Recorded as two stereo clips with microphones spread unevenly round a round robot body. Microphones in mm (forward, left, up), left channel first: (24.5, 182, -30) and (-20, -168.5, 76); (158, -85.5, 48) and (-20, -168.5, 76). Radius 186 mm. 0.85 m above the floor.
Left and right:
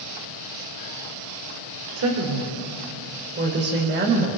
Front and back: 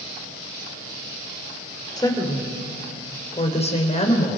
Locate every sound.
2.0 s a woman speaking: 45° right, 4 m; by 4.4 s 25° right, 4.5 m